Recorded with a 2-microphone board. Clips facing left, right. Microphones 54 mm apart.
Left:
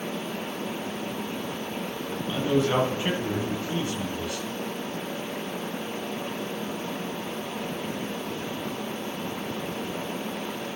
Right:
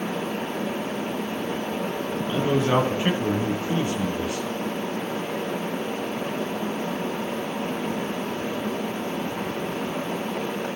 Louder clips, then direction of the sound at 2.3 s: Right 2 dB; 25° right (ahead or behind).